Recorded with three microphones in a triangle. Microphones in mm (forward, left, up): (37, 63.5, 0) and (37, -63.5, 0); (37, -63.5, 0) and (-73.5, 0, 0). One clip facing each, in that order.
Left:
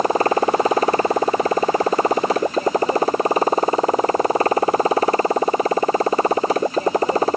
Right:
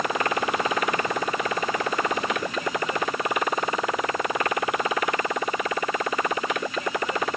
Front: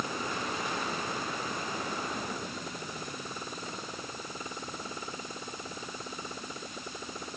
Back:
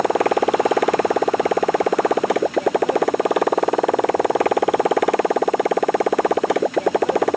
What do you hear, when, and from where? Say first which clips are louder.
0.0 s a motorcycle: left 8 dB, back 19 dB; 145° left